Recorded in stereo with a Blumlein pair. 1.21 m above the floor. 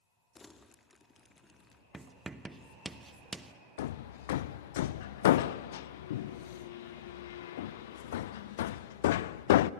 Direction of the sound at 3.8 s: 55° left.